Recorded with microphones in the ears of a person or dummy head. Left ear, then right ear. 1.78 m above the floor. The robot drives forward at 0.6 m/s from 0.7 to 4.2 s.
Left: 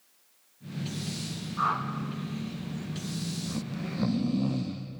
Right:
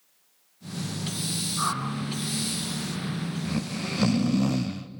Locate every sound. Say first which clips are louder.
1.6 s a whoosh: left 2 dB; 5° right (ahead or behind), 2.5 m
3.5 s snoring: right 5 dB; 80° right, 0.6 m; by 4.9 s 60° right (ahead or behind), 0.7 m